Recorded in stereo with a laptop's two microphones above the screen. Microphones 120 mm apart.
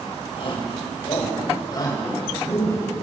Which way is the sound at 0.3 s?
50° left (ahead or behind).